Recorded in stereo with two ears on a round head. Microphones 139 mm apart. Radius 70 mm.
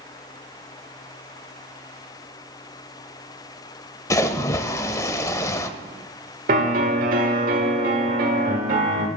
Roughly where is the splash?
Centre.